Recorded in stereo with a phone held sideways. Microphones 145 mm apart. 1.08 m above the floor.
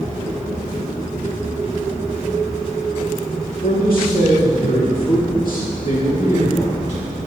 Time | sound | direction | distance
3.6 | a man speaking | 75° left (ahead or behind) | 3 m